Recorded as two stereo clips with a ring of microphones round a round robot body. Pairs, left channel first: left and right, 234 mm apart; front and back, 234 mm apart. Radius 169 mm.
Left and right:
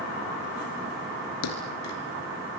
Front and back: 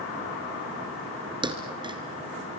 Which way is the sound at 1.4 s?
110° left.